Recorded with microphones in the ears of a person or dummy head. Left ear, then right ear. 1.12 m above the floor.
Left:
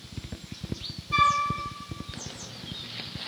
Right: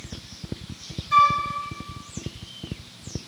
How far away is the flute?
About 0.5 m.